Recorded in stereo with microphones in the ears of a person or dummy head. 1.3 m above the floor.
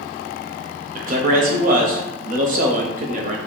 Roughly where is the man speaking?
Right.